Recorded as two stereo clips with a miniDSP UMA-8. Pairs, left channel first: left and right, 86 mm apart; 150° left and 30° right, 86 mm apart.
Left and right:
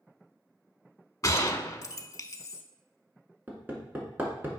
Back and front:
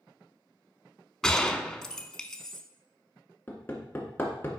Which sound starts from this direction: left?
A gunshot, at 1.2 s.